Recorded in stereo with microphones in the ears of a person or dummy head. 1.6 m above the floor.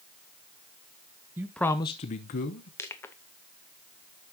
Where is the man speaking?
10° right (ahead or behind), 0.6 m; by 2.7 s 55° left (ahead or behind), 1.1 m.